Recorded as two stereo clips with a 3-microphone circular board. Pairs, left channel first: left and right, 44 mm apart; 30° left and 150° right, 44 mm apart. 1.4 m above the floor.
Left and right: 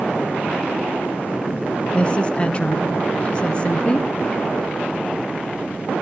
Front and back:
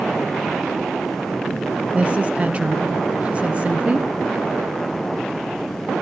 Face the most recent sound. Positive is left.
turn(degrees=155)